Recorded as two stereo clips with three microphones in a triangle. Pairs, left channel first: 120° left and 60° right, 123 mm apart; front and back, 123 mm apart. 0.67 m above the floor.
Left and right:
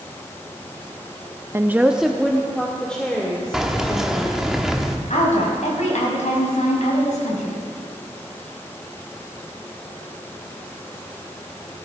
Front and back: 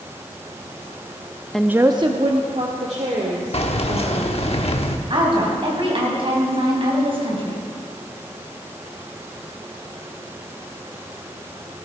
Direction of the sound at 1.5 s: 80° right.